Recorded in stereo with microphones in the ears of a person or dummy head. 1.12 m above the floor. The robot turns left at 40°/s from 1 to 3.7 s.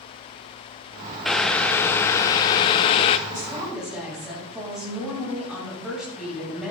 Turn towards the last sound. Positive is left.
turn(degrees=0)  # may be behind; listen again after turning